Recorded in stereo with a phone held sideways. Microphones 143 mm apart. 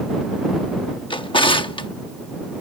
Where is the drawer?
35° left (ahead or behind).